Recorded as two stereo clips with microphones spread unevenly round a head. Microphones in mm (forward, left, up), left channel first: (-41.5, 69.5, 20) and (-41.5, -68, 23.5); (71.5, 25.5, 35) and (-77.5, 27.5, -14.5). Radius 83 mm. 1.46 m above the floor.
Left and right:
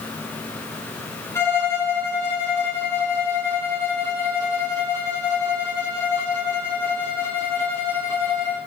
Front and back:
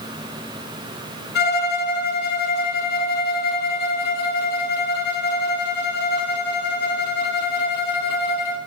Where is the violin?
15° left, 0.6 m.